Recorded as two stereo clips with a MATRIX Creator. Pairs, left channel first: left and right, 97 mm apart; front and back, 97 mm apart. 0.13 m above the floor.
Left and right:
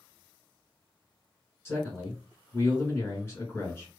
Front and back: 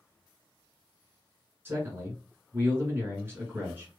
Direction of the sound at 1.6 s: 130° left.